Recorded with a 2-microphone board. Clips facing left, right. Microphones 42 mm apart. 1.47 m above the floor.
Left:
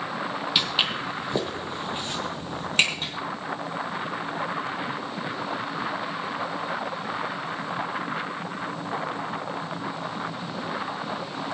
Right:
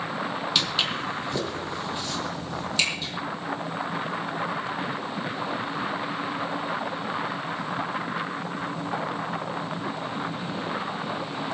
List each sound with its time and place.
0.6 s footsteps: 15° left (ahead or behind), 1.9 m; by 3.1 s 50° left (ahead or behind), 2.5 m